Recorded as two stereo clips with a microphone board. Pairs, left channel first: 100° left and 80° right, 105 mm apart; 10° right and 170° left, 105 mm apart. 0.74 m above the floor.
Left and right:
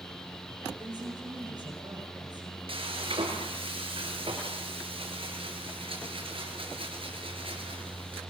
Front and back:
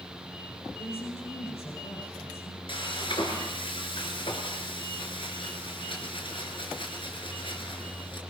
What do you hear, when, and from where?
0.8 s a woman speaking: 30° right, 9 m
2.7 s frying: 50° right, 4.5 m